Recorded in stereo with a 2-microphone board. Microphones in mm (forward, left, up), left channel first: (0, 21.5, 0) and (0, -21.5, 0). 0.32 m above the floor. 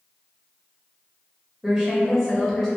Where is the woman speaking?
20° right (ahead or behind), 0.9 m; by 2.7 s 10° left (ahead or behind), 1.1 m.